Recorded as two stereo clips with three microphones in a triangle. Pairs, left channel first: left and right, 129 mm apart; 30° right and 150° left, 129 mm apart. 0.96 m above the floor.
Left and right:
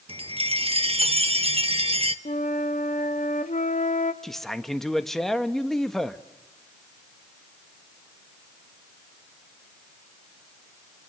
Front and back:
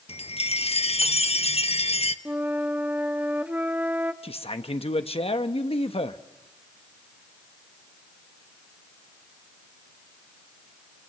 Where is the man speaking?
5° left, 1.3 m.